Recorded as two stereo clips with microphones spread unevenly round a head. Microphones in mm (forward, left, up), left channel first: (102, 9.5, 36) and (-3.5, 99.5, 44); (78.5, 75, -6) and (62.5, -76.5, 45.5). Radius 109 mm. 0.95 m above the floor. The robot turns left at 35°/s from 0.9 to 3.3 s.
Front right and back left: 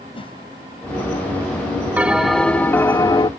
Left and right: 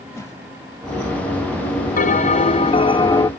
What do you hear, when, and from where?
0.1 s a whoosh: 10° left
2.0 s a bell: 60° left; by 3.3 s 15° left